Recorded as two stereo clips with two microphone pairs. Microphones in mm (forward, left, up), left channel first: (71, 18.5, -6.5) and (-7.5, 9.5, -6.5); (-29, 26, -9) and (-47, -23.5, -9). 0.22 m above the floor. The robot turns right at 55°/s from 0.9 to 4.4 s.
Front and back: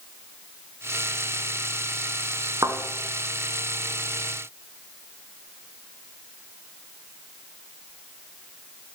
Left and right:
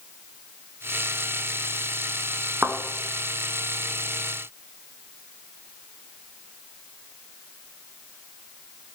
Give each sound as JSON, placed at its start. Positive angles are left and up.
{"t": 2.6, "sound": "a thud", "azimuth_deg": -150, "distance_m": 0.9}